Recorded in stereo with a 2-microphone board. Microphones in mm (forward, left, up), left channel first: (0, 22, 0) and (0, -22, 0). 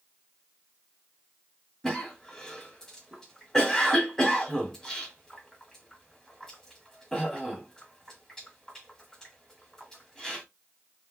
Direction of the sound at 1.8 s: 15° left (ahead or behind).